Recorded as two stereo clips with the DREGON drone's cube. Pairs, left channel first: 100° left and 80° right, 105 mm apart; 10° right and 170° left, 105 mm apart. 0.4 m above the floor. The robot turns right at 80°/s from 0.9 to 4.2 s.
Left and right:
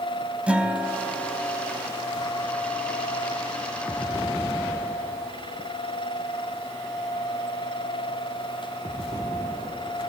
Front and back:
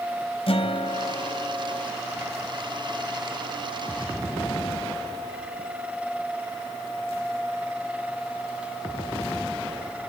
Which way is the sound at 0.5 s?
Straight ahead.